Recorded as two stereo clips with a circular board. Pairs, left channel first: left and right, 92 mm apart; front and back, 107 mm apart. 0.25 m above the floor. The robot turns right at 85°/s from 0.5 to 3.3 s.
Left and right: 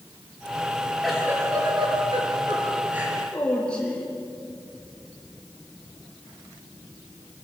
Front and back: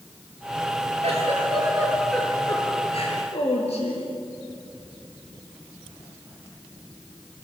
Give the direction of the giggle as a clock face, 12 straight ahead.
6 o'clock.